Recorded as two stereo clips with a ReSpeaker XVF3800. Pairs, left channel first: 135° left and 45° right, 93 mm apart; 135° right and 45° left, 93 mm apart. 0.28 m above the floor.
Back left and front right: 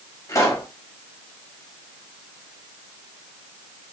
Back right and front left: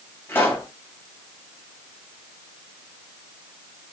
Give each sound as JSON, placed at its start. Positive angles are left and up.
{"t": 0.3, "sound": "a pop", "azimuth_deg": 170, "distance_m": 1.1}